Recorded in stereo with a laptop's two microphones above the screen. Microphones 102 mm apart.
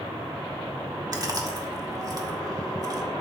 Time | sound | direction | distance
1.1 | chewing | 40° right (ahead or behind) | 1.9 m